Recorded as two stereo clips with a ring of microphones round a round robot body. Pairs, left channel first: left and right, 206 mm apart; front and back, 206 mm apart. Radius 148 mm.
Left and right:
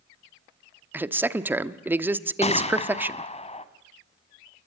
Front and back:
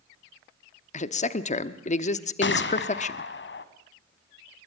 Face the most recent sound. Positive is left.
turn(degrees=30)